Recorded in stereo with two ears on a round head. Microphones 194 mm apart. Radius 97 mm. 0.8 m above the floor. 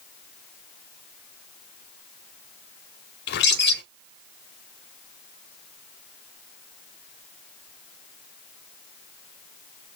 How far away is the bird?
About 0.9 m.